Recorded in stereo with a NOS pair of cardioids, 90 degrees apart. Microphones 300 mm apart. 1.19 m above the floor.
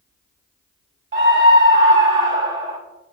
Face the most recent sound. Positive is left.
turn(degrees=-40)